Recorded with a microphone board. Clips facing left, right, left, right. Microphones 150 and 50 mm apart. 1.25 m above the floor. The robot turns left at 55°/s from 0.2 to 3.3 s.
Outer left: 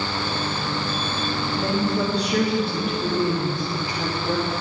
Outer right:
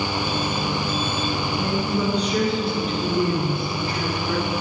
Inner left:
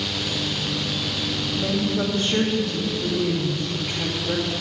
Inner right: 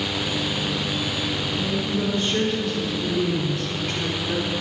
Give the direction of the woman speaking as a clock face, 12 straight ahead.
8 o'clock.